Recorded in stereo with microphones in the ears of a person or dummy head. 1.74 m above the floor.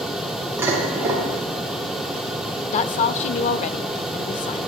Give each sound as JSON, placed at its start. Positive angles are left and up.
{"t": 0.6, "sound": "dishes clattering", "side_deg": -15, "distance_m": 3.0}
{"t": 2.7, "sound": "a woman speaking", "side_deg": 40, "distance_m": 0.5}